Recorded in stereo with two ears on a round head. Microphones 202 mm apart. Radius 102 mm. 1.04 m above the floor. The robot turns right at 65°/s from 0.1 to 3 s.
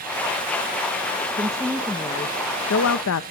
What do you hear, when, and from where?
1.4 s a woman speaking: 25° right, 0.8 m; by 3.2 s 80° left, 0.8 m